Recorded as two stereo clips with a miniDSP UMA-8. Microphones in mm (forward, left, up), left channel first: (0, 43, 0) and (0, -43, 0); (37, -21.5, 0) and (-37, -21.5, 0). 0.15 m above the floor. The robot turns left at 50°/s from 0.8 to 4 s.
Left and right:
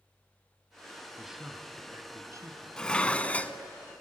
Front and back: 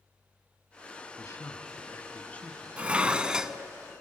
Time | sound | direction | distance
1.2 | a man speaking | straight ahead | 1.7 m
2.8 | dishes clattering | 150° left | 0.7 m